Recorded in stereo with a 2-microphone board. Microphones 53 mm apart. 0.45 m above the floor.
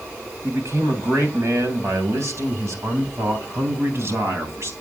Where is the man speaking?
65° right (ahead or behind), 3 m; by 4.7 s 55° right (ahead or behind), 3.5 m.